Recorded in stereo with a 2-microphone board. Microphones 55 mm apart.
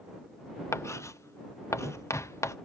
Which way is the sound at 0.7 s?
55° left (ahead or behind).